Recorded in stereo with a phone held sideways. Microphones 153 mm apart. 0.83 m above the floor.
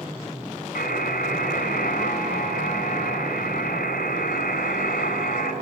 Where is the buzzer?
80° left, 7.5 m.